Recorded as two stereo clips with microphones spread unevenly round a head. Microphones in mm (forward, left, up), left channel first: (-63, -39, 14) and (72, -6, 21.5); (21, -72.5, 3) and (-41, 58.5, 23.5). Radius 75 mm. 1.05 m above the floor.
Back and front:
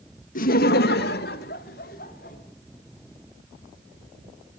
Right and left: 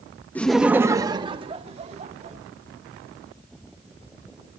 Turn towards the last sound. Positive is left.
turn(degrees=160)